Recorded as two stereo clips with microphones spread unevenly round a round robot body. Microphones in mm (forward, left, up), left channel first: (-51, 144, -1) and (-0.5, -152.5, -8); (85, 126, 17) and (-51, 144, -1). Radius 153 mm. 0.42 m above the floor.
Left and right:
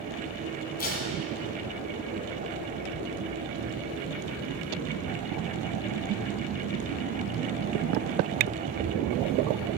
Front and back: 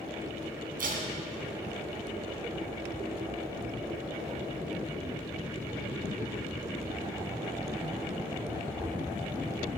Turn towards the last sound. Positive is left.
turn(degrees=160)